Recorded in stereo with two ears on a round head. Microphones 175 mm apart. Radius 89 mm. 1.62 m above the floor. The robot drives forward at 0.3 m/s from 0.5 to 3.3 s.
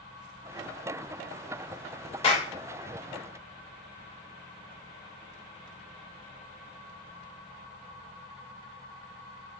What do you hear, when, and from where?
2.2 s a clap: 30° left (ahead or behind), 2.5 m